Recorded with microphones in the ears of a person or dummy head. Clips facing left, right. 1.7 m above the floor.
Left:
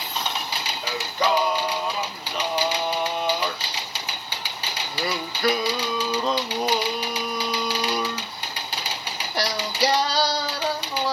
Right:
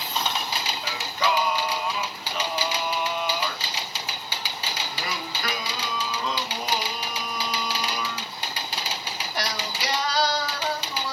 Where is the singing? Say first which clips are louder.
Left 4 dB; 30° left (ahead or behind), 1.2 m.